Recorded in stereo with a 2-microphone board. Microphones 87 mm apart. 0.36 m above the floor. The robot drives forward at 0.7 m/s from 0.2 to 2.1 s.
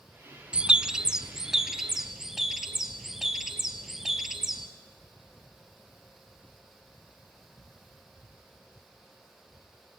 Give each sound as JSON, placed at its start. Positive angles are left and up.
{"t": 0.5, "sound": "a bird", "side_deg": -15, "distance_m": 0.6}